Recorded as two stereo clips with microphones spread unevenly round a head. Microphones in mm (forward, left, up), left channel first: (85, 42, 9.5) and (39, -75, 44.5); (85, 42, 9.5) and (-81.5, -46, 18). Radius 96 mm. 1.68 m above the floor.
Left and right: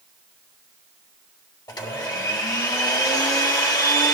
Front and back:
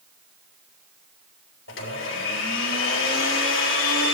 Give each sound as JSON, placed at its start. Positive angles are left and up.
{"t": 1.7, "sound": "a blender", "azimuth_deg": 5, "distance_m": 3.5}